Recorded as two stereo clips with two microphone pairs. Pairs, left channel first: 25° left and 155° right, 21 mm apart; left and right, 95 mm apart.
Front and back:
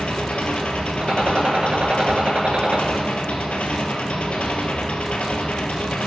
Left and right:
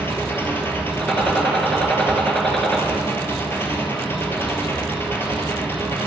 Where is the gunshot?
175° left, 1.2 m.